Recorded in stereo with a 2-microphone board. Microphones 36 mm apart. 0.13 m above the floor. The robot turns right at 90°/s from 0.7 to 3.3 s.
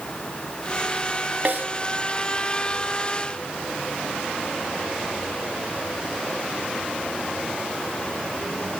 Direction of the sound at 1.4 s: 50° right (ahead or behind).